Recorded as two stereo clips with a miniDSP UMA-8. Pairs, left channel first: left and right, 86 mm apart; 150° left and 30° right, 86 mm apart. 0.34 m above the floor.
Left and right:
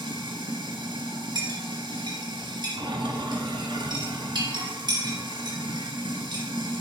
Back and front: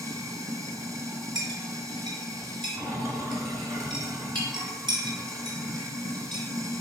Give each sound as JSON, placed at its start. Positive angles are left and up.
{"t": 0.0, "sound": "running water", "azimuth_deg": -80, "distance_m": 1.2}
{"t": 1.4, "sound": "a clink", "azimuth_deg": -60, "distance_m": 2.5}